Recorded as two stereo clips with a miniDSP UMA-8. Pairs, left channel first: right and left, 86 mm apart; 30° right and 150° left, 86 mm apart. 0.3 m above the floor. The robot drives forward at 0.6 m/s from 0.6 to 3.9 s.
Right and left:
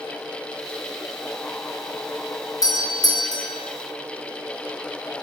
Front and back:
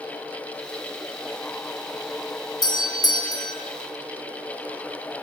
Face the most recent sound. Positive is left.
turn(degrees=-65)